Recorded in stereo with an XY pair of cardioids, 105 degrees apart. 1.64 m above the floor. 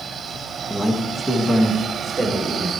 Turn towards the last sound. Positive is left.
turn(degrees=-25)